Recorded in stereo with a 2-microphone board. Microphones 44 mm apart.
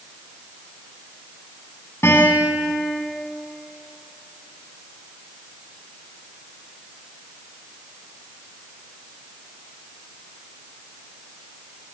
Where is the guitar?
85° left, 10 m.